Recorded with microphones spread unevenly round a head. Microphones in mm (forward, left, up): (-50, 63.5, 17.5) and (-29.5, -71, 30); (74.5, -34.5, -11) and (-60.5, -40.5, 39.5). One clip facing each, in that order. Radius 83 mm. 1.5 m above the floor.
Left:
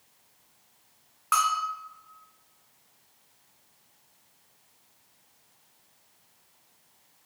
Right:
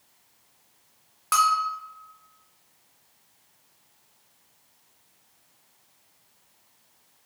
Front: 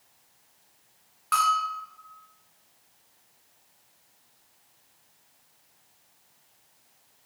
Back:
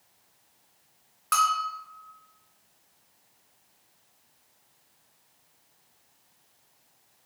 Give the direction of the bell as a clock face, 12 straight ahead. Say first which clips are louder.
Right 3 dB, front 1 dB; 4 o'clock.